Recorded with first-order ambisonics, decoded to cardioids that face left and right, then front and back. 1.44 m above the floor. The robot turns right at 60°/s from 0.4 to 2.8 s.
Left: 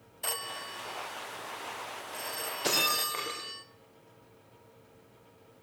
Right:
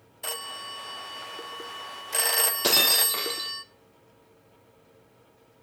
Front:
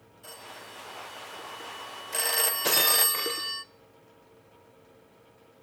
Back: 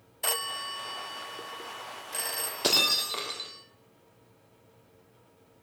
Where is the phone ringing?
Straight behind, 0.5 m; by 3.6 s 35° right, 0.5 m.